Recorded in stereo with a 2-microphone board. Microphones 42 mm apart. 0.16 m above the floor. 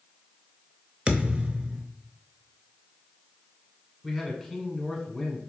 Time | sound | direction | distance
1.1 | a thud | 25° right (ahead or behind) | 0.6 m
4.0 | a man speaking | 5° left (ahead or behind) | 1.2 m